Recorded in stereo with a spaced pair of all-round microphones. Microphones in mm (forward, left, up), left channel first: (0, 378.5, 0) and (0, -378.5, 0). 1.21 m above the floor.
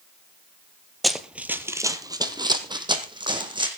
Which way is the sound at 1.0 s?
Centre (ahead or behind).